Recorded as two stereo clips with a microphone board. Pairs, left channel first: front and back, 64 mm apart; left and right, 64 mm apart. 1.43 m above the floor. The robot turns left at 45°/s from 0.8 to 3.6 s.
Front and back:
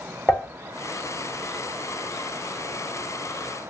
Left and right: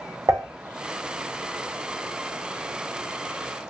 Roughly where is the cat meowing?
No cat meowing in this recording.